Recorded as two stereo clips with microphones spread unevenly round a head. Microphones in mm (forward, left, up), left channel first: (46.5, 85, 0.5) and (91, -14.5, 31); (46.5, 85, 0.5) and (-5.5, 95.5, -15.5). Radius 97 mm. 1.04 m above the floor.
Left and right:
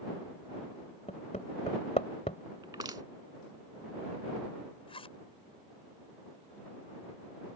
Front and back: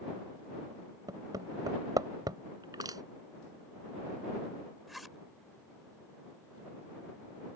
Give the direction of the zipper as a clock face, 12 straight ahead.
9 o'clock.